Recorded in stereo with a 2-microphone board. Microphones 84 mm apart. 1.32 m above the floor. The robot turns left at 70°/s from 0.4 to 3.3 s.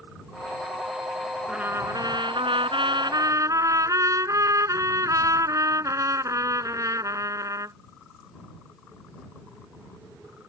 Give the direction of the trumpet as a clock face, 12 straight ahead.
12 o'clock.